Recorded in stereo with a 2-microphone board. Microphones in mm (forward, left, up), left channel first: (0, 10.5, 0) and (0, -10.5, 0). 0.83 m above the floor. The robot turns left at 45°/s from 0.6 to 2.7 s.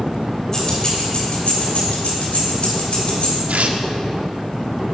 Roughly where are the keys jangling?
Left.